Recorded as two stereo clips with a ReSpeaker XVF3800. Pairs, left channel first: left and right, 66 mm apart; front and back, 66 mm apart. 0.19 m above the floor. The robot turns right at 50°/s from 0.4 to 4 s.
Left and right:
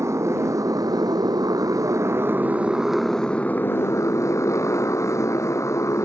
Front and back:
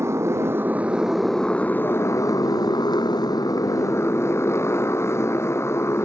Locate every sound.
0.0 s a motorcycle: 130° right; by 6.1 s 50° left